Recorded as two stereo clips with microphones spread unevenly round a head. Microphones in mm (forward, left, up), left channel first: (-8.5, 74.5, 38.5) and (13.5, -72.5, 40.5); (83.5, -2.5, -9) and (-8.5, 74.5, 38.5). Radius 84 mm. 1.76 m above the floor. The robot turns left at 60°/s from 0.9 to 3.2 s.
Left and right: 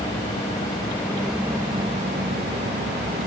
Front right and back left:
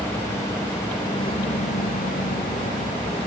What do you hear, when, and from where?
0.0 s a vehicle: 30° left; by 3.3 s 105° right